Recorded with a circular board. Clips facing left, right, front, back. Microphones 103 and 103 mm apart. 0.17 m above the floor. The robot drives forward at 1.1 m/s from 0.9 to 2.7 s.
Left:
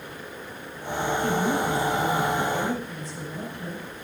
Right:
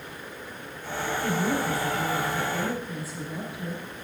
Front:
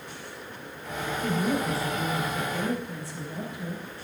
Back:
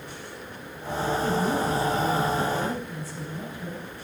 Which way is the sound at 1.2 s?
5° right.